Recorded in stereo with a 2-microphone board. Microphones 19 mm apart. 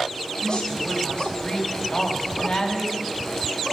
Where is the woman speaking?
50° left (ahead or behind), 6 m.